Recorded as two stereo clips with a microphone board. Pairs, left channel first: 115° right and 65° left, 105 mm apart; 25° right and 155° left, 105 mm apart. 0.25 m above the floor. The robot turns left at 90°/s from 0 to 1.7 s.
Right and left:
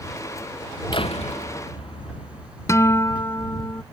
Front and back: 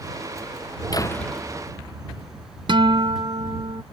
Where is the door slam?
75° right; by 2.5 s 145° right.